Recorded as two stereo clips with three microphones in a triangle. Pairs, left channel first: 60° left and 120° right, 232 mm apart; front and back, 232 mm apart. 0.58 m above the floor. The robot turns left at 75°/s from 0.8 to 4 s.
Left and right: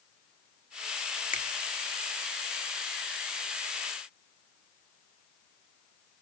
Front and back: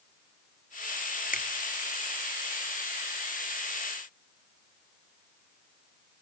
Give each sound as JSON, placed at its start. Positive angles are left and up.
{"t": 1.3, "sound": "a finger snap", "azimuth_deg": 25, "distance_m": 1.1}